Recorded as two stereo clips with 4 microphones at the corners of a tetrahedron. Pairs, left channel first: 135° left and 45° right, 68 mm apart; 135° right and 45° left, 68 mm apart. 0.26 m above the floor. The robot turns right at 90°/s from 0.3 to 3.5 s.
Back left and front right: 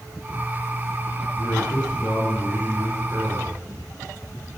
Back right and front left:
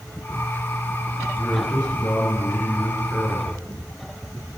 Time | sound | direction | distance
1.4 | a man speaking | 140° left | 4 m